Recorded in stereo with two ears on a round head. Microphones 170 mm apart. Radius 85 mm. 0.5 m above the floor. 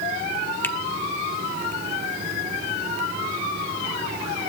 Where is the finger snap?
10° left (ahead or behind), 1.2 m.